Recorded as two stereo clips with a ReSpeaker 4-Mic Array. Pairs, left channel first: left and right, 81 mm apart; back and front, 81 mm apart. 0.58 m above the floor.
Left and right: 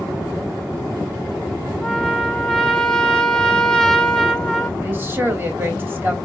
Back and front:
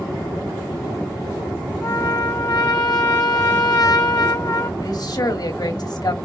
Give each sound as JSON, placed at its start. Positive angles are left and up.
{"t": 1.8, "sound": "a trumpet", "azimuth_deg": 165, "distance_m": 1.0}
{"t": 4.8, "sound": "a woman speaking", "azimuth_deg": -155, "distance_m": 2.5}